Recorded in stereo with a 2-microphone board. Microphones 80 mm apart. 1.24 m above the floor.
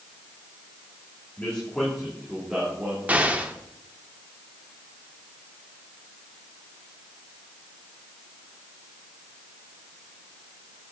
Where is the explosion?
20° right (ahead or behind), 0.8 m.